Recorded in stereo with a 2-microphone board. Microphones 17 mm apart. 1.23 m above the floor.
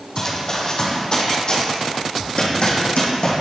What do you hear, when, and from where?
0.2 s running footsteps: 30° left (ahead or behind), 1.9 m; by 3.4 s 60° left (ahead or behind), 2.5 m